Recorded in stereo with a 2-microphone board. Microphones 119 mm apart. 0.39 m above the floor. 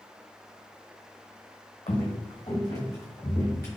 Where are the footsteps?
50° left (ahead or behind), 1.1 m; by 3.7 s 20° left (ahead or behind), 2.5 m.